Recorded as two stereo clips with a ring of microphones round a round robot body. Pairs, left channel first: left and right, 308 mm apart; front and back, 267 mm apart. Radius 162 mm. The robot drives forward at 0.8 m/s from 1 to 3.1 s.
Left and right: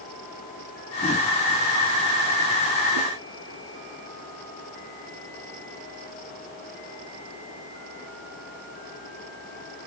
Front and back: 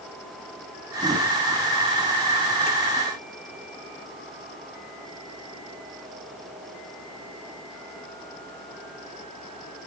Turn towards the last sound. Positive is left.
No sound to turn to.